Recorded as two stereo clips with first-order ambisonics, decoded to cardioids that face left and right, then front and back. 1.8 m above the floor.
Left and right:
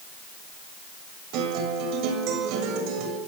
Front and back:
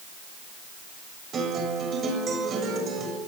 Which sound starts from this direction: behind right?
A guitar, at 1.3 s.